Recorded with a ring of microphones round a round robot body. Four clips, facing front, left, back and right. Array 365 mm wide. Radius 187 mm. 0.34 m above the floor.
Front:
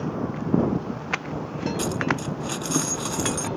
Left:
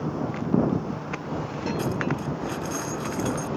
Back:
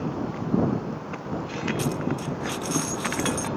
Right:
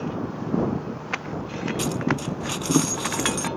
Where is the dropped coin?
85° right.